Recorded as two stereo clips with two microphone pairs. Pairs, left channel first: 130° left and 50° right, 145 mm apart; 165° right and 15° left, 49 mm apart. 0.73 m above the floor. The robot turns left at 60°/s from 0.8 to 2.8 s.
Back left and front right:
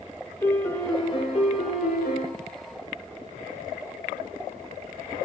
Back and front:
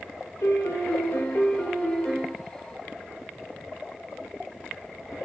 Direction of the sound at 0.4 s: 160° right.